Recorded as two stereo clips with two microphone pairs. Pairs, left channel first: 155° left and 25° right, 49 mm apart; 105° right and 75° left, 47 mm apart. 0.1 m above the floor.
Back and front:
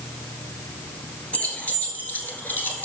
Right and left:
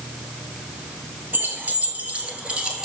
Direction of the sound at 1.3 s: 100° left.